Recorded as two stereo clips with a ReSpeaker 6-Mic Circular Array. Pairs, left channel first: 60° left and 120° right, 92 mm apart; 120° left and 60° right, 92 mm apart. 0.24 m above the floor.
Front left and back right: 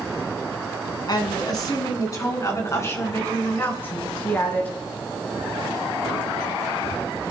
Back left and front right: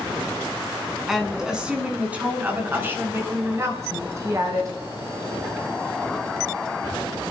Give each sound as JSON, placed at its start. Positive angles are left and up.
{"t": 1.1, "sound": "a woman speaking", "azimuth_deg": 25, "distance_m": 3.0}